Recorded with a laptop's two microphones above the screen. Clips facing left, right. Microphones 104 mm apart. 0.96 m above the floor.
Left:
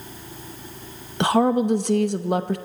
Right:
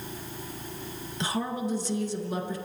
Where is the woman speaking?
65° left (ahead or behind), 0.8 m.